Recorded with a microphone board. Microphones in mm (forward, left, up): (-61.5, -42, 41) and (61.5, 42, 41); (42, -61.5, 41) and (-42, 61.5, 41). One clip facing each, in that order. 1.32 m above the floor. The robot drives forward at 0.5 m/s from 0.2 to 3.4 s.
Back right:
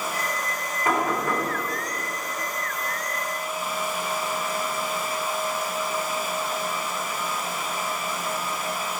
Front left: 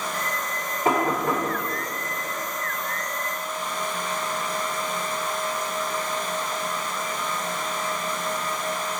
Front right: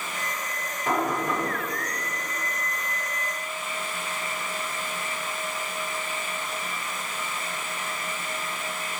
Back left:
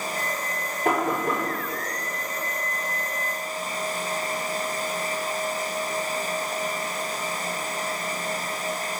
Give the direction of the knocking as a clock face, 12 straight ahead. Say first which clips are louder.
Front left 2 dB, back left 2 dB; 9 o'clock.